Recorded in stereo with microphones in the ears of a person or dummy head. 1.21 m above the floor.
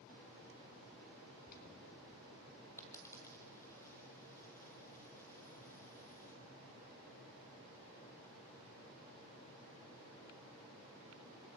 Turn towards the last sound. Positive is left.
turn(degrees=15)  # may be behind; listen again after turning